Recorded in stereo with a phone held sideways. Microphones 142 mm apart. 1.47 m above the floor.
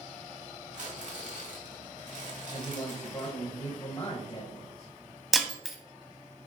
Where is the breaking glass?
Centre (ahead or behind), 1.3 m.